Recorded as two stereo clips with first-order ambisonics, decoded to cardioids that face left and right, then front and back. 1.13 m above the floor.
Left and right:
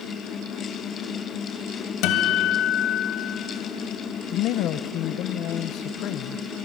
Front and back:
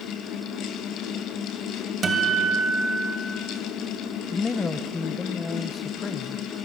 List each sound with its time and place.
2.0 s a guitar: 115° left, 2 m
4.3 s a man speaking: 70° left, 0.6 m